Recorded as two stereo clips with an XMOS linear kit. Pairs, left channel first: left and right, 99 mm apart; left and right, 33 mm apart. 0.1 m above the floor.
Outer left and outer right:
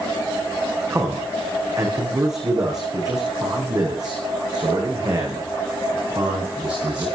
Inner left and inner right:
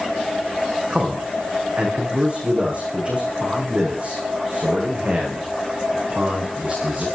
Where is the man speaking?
35° right (ahead or behind), 6.5 m; by 7.0 s 50° right (ahead or behind), 10 m.